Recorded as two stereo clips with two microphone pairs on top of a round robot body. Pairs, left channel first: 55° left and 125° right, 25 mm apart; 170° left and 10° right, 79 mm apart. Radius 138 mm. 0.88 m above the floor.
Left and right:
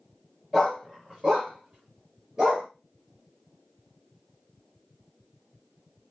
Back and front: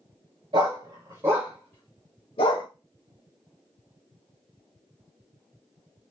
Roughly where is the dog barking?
Ahead right.